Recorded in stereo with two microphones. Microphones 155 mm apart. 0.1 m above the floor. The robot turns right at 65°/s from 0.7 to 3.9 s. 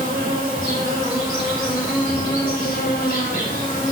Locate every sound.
0.0 s an insect: 50° right, 2.0 m; by 3.9 s 155° left, 2.0 m